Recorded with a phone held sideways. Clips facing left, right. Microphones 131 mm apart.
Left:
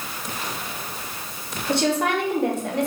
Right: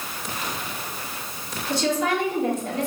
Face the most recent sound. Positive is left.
turn(degrees=65)  # may be behind; listen again after turning